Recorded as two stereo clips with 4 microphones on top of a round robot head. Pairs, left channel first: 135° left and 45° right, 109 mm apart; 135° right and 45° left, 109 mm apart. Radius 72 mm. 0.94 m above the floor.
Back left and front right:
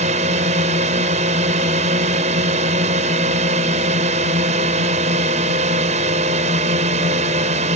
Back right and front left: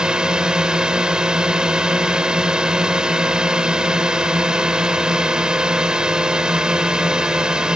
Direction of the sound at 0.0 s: 35° right.